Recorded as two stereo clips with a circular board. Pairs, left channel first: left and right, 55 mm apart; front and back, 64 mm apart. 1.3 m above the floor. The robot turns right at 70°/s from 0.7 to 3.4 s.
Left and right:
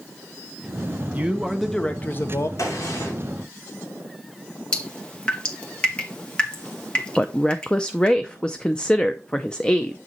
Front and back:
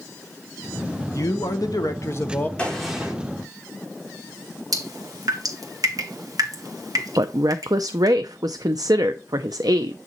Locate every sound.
1.1 s a man speaking: 30° right, 1.2 m; by 2.5 s 65° left, 1.2 m
2.6 s a gunshot: 70° left, 3 m; by 3.1 s 110° left, 3 m
4.7 s dripping: 160° left, 1.8 m
7.2 s a woman speaking: 165° left, 0.5 m